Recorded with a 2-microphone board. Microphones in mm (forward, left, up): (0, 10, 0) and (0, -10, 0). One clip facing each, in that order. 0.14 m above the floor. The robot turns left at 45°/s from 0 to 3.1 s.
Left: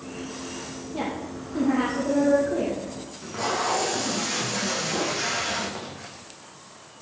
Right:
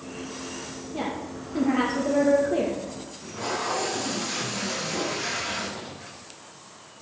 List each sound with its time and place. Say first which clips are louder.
0.9 s a woman speaking: left 1 dB; 5° right, 3.5 m; by 2.8 s 90° right, 3.5 m
3.1 s tape being pulled: left 4 dB; 70° left (ahead or behind), 5.5 m